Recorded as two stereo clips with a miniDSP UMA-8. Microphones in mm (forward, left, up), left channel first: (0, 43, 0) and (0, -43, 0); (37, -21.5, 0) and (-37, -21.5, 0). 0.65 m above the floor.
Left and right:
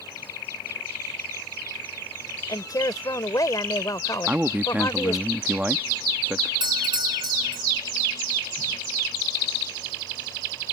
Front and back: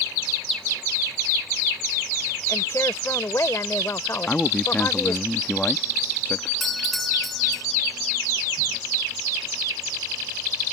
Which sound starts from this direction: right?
A doorbell, at 6.6 s.